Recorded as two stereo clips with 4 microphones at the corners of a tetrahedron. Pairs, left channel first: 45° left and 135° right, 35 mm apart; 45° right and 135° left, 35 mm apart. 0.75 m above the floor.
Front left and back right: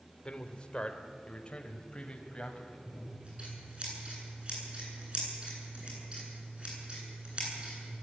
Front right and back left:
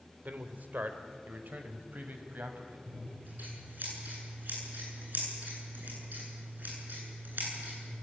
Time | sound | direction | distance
0.2 | a man speaking | 105° left | 2.0 m
2.9 | scissors | 165° left | 10 m